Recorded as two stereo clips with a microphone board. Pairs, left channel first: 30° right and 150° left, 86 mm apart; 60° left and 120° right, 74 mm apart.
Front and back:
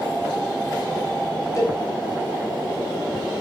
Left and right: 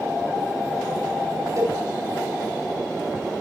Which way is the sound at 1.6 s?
80° right.